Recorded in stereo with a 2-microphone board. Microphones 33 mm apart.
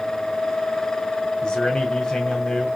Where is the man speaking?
25° left (ahead or behind), 1.8 m.